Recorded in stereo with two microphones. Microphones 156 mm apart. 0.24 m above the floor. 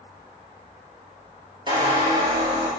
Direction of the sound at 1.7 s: 30° right (ahead or behind).